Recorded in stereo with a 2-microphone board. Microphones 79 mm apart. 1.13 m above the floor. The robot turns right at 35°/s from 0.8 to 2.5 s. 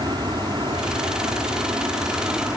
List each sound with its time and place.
0.0 s an aircraft: 65° right (ahead or behind); by 2.6 s 30° right (ahead or behind)